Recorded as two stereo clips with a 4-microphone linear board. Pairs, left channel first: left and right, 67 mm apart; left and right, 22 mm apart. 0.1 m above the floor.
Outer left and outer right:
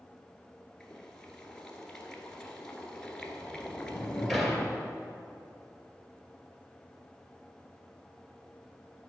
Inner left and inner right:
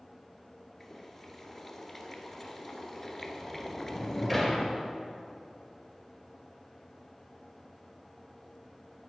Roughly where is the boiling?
Centre.